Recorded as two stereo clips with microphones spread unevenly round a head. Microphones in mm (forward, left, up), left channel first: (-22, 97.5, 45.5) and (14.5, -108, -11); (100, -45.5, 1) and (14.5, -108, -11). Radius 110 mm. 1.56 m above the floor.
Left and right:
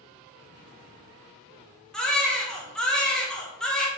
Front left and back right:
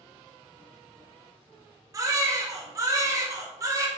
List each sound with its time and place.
1.9 s a baby crying: 165° left, 0.7 m